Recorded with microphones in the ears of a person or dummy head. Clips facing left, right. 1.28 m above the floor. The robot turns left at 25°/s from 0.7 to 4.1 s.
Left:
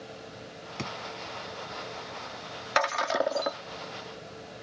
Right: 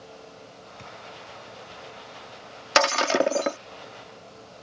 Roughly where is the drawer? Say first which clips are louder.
Left 9 dB; left.